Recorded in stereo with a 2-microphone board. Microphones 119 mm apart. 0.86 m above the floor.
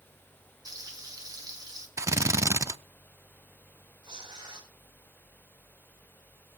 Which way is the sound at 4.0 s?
40° right (ahead or behind).